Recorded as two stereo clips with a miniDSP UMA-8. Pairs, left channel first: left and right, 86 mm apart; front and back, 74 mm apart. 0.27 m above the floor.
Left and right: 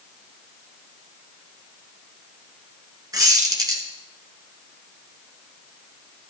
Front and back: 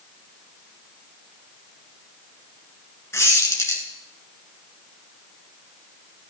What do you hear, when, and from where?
3.1 s a squeak: 50° right, 2.0 m